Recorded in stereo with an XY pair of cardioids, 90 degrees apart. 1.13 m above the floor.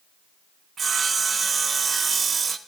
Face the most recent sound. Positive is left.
turn(degrees=-40)